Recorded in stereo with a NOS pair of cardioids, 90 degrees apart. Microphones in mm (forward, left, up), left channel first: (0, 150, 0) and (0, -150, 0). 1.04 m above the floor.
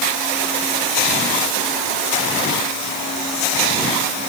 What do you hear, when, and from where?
Only background noise.